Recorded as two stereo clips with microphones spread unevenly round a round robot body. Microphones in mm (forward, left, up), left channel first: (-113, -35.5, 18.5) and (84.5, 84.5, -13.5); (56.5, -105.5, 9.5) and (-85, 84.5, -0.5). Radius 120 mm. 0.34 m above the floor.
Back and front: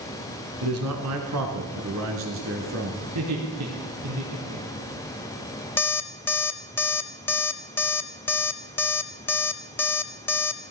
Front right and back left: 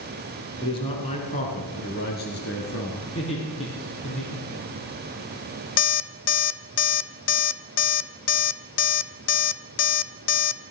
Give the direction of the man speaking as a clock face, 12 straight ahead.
11 o'clock.